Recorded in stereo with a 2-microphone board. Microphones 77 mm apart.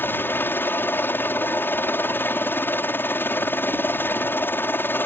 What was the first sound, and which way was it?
A helicopter, 30° left (ahead or behind).